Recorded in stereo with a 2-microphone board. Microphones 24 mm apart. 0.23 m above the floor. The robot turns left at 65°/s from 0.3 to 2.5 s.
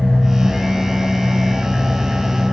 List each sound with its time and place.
0.0 s an engine running: 45° left, 4 m; by 2.5 s 100° right, 4 m